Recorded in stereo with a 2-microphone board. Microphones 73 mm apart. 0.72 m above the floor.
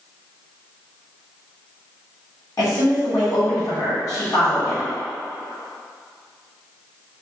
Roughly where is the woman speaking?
Left.